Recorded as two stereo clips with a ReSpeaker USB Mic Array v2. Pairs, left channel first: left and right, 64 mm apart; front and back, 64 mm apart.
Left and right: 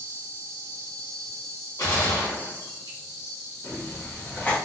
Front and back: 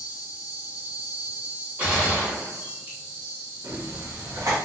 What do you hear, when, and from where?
0.0 s an insect: 135° right, 1.2 m
1.8 s a gunshot: 115° left, 1.2 m
3.6 s writing: 155° left, 0.8 m